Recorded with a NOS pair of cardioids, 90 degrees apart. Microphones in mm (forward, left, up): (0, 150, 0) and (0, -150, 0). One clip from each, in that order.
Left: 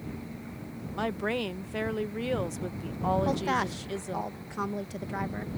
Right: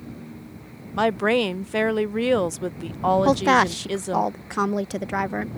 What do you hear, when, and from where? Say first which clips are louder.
1.0 s a woman speaking: right 11 dB; 45° right
3.2 s a woman speaking: right 11 dB; 55° right